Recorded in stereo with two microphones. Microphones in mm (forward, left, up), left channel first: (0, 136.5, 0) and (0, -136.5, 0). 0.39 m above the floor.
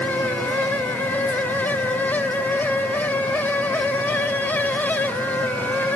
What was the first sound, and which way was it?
Only background noise.